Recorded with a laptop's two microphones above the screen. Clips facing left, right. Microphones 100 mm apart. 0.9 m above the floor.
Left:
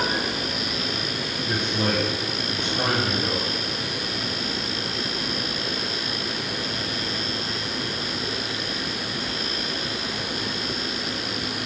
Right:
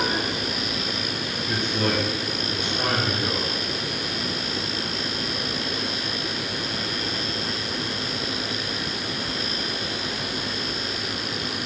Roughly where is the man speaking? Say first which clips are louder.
Even; centre.